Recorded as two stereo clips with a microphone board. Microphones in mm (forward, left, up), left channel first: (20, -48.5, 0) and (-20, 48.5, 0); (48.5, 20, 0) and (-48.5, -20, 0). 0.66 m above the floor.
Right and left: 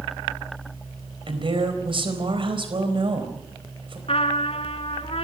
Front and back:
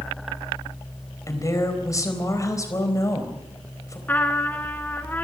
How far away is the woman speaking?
About 4 m.